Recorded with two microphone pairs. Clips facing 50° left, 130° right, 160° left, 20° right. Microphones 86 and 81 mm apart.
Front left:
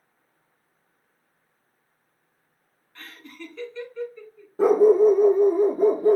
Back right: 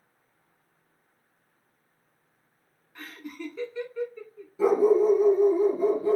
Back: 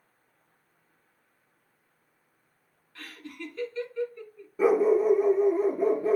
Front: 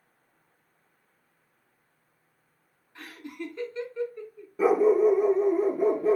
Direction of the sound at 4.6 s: 70° left.